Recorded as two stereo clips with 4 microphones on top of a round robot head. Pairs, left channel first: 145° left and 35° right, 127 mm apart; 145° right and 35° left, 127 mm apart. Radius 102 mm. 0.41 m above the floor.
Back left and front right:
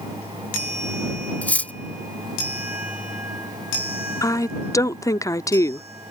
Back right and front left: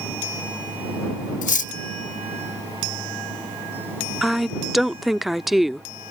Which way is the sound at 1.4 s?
135° right.